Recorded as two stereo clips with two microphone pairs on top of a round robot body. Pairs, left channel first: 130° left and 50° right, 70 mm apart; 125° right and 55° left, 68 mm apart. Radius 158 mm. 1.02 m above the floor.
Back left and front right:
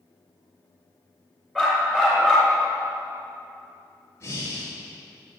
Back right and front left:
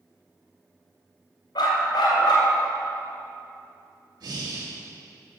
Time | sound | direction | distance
1.6 | a dog barking | 140° right | 2.5 m
4.2 | breathing | 75° left | 2.5 m